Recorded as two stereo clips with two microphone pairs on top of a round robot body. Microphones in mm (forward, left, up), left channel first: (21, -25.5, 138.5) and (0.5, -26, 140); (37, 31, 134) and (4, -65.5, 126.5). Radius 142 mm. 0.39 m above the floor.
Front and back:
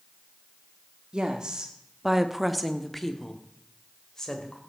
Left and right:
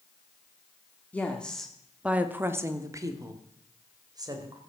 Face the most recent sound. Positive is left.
turn(degrees=-60)